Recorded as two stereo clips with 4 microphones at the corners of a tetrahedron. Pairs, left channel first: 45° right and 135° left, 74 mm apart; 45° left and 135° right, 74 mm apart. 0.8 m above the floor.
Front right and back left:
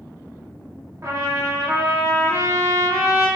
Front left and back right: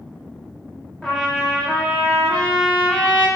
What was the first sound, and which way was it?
A trumpet, 120° left.